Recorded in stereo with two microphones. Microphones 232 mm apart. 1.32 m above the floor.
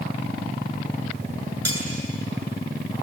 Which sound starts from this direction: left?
Cutlery clinking, at 1.6 s.